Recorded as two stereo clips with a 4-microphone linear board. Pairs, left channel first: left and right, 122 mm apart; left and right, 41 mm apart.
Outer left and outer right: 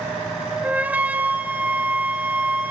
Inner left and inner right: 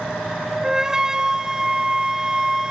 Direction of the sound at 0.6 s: 15° right (ahead or behind).